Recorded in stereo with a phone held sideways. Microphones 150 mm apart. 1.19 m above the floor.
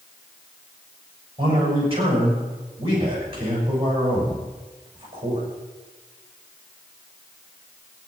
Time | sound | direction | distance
1.4 | a man speaking | 40° right (ahead or behind) | 7 m